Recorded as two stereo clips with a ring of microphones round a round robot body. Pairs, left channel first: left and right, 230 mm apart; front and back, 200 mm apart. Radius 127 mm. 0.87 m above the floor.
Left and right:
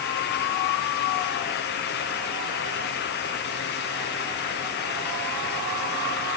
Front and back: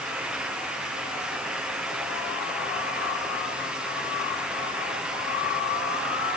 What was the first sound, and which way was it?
Only background noise.